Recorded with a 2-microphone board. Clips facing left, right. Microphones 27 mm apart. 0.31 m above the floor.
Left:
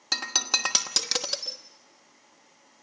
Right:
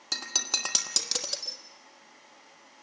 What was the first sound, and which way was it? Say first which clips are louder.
Breaking glass: left 4 dB; 25° left (ahead or behind).